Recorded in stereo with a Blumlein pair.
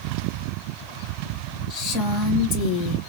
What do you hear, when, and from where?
1.7 s a woman speaking: 35° left, 1.6 m